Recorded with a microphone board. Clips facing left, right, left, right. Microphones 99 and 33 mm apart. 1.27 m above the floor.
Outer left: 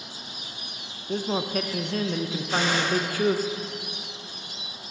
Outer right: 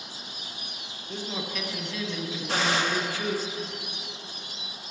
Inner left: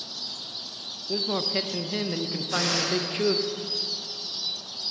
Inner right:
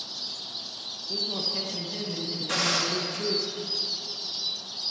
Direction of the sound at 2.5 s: 85° right.